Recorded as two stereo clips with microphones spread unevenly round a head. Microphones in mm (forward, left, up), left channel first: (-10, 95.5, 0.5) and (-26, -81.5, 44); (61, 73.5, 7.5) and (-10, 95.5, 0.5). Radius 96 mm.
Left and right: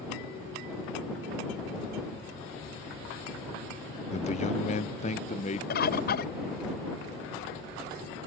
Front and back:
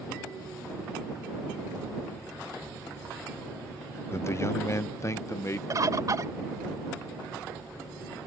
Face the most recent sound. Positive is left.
turn(degrees=120)